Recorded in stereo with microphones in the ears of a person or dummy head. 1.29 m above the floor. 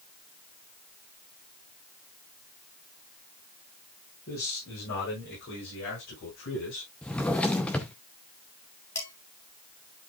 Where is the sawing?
I don't hear sawing.